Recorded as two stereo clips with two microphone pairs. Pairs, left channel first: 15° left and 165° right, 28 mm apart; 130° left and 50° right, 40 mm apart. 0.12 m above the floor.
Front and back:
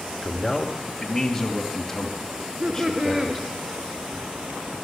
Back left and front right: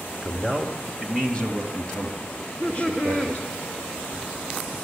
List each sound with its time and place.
0.2 s a man speaking: 85° left, 1.7 m; by 3.4 s 80° left, 3.5 m
2.4 s laughter: 165° left, 1.3 m